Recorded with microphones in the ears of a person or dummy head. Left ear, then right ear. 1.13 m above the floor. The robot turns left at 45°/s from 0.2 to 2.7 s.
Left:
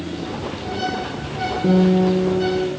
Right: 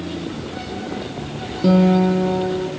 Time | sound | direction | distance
1.6 | a guitar | 95° right | 3.5 m